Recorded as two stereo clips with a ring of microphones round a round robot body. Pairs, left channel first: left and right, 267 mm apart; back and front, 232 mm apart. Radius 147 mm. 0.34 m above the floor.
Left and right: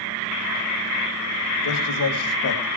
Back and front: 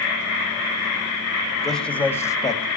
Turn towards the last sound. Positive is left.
turn(degrees=110)